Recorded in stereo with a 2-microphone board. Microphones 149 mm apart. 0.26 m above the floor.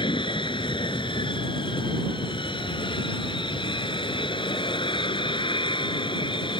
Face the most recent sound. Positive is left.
turn(degrees=35)  # may be behind; listen again after turning